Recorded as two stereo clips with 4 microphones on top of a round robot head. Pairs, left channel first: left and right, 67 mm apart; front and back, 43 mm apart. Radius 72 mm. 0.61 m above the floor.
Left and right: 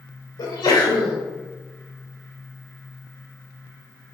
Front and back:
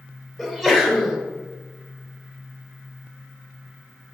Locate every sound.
0.4 s a sneeze: 100° left, 2.5 m